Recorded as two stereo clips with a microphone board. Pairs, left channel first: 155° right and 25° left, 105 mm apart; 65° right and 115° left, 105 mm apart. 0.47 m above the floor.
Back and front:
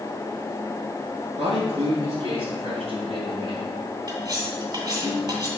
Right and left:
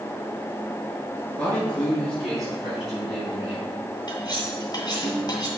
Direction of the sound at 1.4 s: 10° left.